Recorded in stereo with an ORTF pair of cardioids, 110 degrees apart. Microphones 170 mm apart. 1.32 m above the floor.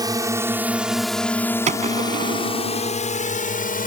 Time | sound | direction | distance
0.0 | a drone | 25° right | ?
1.7 | a gunshot | 45° right | ?